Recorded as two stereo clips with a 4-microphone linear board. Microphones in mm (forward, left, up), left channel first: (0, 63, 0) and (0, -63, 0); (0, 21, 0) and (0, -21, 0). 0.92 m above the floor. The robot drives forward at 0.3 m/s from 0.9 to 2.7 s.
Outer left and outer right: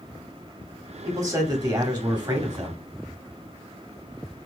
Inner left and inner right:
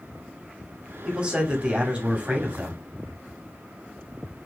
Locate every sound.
1.1 s a man speaking: 30° right (ahead or behind), 2.5 m; by 2.8 s 35° right (ahead or behind), 2 m